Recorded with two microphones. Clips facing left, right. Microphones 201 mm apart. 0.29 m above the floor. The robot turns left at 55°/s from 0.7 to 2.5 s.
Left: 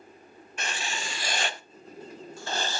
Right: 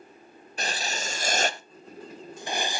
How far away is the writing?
About 0.6 m.